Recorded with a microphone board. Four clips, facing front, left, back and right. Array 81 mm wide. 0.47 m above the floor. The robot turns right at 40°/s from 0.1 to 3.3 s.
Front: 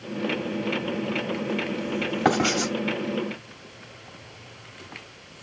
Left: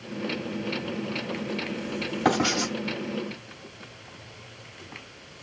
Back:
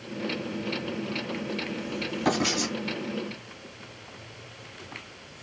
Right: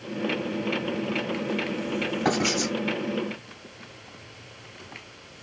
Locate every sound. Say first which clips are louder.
2.2 s writing: left 3 dB, front 4 dB; 15° left, 2 m; by 2.7 s 35° left, 2 m